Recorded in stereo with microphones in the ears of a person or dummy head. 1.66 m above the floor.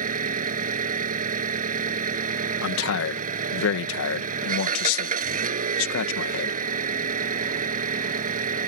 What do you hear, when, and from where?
0.0 s an engine running: 45° right (ahead or behind)
2.6 s a man speaking: 85° left